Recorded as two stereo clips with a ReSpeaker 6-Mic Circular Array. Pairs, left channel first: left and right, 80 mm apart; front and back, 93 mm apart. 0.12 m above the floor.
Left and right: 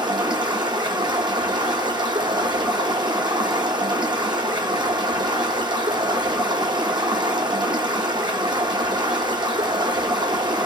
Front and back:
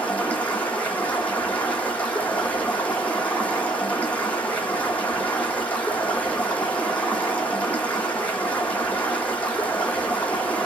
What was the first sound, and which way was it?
Running water, 75° right.